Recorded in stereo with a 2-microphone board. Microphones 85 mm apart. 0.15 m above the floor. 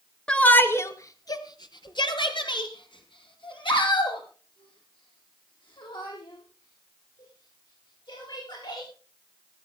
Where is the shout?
10° left (ahead or behind), 2.0 m; by 8.9 s 70° left (ahead or behind), 12.5 m.